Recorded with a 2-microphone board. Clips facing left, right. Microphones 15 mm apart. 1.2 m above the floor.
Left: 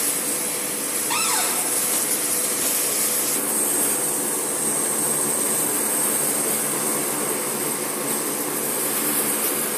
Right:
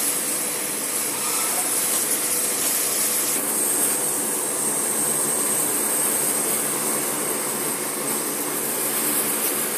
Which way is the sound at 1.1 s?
75° left (ahead or behind).